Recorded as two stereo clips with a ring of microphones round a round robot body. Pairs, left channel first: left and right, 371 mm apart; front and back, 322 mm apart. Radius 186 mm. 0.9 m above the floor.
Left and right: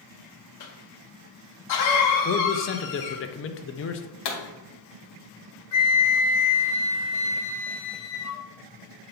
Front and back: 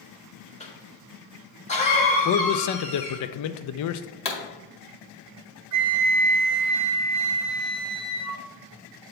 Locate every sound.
0.6 s a cough: 65° left, 1.0 m
2.2 s a man speaking: 35° left, 0.5 m
4.2 s a pop: 70° left, 1.9 m
5.7 s a flute: 135° left, 0.7 m